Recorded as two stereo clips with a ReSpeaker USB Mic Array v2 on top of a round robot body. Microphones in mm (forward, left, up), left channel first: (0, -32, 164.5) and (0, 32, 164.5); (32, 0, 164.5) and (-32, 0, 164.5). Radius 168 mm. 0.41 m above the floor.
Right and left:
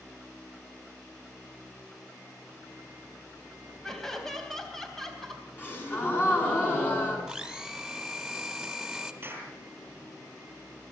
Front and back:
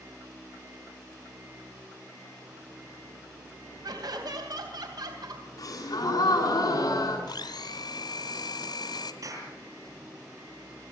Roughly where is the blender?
Ahead.